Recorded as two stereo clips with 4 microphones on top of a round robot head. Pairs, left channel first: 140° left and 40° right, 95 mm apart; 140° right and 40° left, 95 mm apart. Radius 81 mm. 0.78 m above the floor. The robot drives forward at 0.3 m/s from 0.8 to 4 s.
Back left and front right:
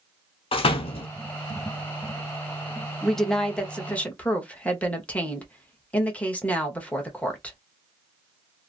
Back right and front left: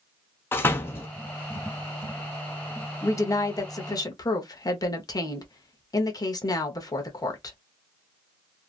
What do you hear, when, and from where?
0.5 s a door slam: 155° left, 0.7 m; by 1.1 s 160° left, 0.8 m
3.0 s a woman speaking: 135° right, 0.9 m; by 7.6 s 150° right, 1.1 m